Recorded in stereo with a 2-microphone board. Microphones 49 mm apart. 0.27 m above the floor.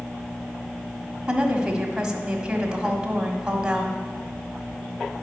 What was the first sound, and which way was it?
A woman speaking, 15° right (ahead or behind).